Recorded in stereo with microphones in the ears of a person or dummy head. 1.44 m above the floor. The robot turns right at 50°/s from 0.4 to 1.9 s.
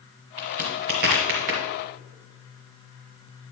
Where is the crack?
25° right (ahead or behind), 1.6 m; by 1.6 s 50° right (ahead or behind), 1.6 m.